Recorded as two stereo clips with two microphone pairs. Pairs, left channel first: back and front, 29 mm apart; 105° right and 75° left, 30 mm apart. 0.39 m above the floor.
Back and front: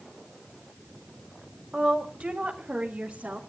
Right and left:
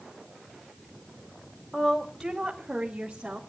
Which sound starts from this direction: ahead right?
A woman speaking, at 1.7 s.